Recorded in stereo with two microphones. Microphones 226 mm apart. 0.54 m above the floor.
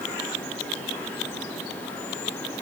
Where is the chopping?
No chopping in this recording.